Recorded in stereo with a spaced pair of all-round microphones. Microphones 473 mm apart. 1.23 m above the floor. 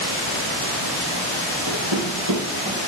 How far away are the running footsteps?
About 3.5 m.